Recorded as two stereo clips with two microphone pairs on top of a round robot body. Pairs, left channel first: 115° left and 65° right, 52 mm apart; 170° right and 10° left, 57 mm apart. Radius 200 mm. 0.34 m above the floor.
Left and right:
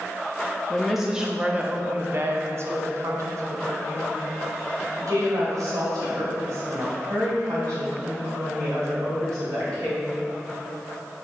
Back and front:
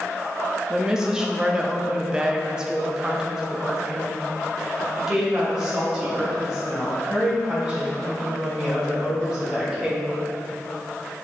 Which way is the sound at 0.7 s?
75° left.